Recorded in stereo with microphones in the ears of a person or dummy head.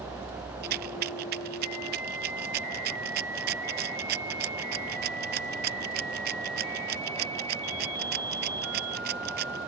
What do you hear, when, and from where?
0.6 s a rattle: 55° right (ahead or behind)